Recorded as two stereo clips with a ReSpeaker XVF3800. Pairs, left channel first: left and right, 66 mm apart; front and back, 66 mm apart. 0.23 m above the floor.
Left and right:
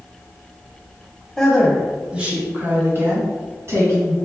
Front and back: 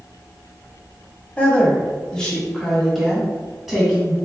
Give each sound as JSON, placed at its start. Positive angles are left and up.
{"t": 1.4, "sound": "a woman speaking", "azimuth_deg": 15, "distance_m": 1.0}